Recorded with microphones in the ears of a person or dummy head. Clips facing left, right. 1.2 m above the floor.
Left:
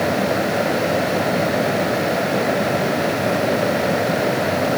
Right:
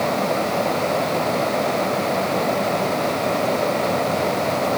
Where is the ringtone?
I don't hear a ringtone.